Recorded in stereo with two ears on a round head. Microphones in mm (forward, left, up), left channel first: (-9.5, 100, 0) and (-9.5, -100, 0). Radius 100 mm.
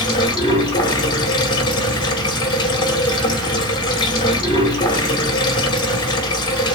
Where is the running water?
20° left (ahead or behind), 1.4 m.